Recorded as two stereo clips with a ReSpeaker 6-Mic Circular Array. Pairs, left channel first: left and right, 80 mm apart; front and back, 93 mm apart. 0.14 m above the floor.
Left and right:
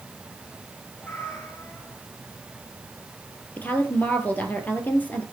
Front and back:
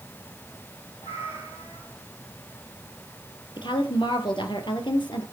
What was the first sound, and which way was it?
A cat meowing, 20° left.